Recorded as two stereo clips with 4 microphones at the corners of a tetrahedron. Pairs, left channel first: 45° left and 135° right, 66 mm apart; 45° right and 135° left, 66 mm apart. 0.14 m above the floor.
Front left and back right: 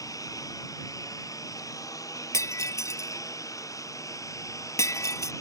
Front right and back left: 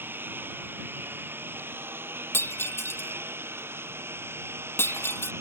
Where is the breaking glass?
10° left.